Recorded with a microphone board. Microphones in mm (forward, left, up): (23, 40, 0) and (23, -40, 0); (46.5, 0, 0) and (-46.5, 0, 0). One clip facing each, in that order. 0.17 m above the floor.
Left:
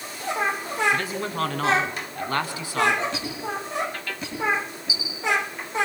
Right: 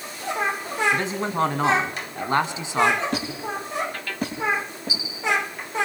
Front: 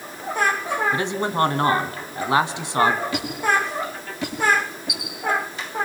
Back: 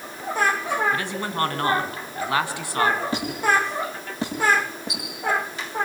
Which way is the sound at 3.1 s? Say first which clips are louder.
Right 2 dB, even; 130° right.